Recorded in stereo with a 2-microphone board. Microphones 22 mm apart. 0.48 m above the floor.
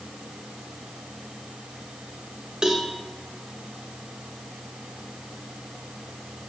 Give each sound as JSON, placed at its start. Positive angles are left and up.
{"t": 2.6, "sound": "a cowbell", "side_deg": -35, "distance_m": 1.2}